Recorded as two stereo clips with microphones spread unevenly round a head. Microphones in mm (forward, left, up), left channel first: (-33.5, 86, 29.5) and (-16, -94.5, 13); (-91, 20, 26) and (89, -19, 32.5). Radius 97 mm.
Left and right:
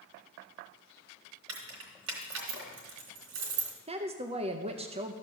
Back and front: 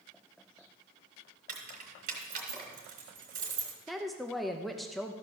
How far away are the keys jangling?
About 3 m.